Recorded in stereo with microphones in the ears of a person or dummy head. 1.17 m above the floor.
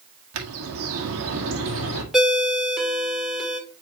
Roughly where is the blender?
I don't hear a blender.